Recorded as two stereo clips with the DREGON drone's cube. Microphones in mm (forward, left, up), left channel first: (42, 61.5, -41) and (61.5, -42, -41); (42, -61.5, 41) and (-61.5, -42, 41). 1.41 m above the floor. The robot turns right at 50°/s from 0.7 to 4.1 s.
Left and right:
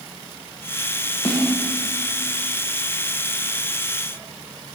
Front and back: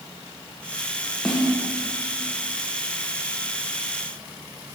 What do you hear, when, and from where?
1.2 s a snare drum: 75° left, 1.5 m; by 1.5 s 85° left, 1.5 m